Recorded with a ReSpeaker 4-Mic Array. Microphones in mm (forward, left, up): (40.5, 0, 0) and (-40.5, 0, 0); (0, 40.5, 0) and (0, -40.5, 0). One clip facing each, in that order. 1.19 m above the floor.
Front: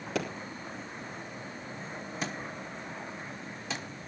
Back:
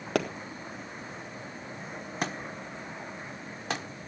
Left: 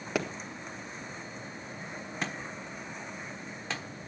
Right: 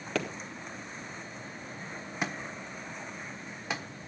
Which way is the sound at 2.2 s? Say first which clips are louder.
Back 4 dB, right 2 dB; 165° right.